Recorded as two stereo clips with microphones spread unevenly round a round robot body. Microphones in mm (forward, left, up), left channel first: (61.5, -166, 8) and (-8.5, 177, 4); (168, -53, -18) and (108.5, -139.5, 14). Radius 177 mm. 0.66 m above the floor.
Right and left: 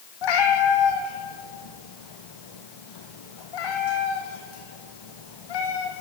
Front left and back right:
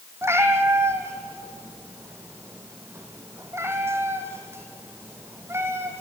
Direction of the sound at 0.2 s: 65° right.